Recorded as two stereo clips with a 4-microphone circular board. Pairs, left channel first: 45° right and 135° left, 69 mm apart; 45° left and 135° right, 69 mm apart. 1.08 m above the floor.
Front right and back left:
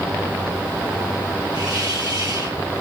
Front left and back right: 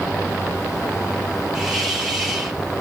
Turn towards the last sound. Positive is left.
turn(degrees=140)